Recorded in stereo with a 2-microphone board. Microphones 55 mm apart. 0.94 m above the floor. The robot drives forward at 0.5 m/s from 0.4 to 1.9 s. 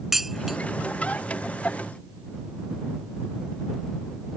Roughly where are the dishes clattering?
Centre.